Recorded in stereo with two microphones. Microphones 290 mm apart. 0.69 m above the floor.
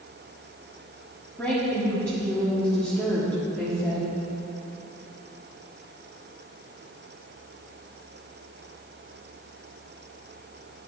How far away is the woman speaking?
About 1.5 m.